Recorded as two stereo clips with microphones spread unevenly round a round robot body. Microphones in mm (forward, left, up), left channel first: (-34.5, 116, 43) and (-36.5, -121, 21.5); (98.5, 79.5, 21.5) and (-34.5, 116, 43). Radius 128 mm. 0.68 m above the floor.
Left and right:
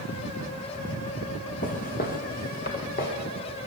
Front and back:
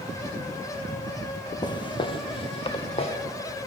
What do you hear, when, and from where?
1.6 s footsteps: 45° left, 0.9 m; by 3.1 s 35° left, 1.8 m